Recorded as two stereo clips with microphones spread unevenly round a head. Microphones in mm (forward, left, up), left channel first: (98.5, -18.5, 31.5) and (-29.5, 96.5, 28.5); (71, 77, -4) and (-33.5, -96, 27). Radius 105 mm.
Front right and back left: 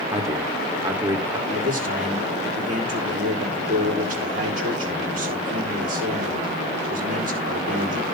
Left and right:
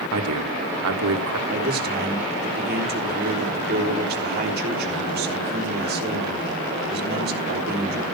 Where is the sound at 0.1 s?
145° right, 2.5 m.